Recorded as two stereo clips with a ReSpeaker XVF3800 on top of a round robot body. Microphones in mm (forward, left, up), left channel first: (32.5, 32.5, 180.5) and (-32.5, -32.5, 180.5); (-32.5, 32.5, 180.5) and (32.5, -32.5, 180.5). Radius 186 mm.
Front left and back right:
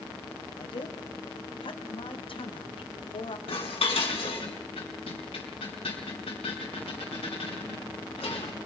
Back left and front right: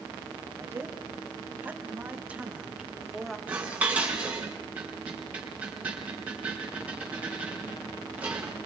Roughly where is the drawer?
No drawer in this recording.